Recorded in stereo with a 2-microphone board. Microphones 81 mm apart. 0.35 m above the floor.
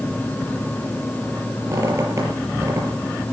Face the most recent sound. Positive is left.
turn(degrees=-35)  # may be behind; listen again after turning